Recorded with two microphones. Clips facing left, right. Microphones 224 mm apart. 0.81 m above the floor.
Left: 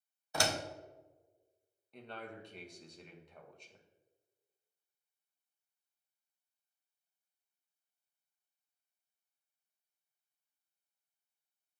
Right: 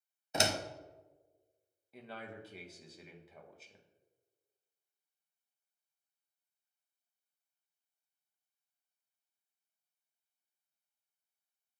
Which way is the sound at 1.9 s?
5° right (ahead or behind).